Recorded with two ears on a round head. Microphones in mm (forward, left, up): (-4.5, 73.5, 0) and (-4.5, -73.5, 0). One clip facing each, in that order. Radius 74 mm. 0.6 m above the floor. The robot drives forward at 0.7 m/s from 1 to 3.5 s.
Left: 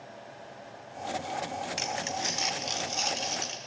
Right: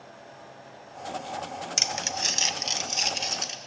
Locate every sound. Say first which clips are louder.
1.8 s crumpling: even; 55° right (ahead or behind), 0.7 m; by 3.6 s 20° right (ahead or behind), 1.7 m